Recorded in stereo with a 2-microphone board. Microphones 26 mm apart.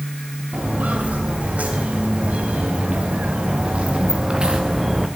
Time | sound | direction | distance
0.5 | footsteps | 75° right (ahead or behind) | 3.5 m